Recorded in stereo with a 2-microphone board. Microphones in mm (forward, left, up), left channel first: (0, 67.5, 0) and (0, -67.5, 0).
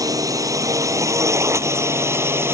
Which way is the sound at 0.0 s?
25° right (ahead or behind).